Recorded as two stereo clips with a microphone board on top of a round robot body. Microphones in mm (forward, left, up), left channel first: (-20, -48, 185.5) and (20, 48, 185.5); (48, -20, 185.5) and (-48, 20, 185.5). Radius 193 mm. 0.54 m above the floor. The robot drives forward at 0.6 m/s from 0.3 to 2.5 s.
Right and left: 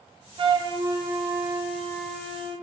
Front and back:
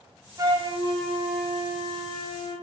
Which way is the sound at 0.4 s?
100° left.